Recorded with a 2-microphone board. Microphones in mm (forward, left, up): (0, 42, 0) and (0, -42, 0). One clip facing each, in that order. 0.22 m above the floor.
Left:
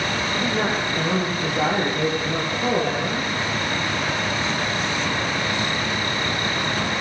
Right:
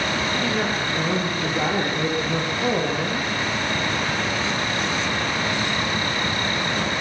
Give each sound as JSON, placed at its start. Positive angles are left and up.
{"t": 0.3, "sound": "a woman speaking", "side_deg": 5, "distance_m": 9.0}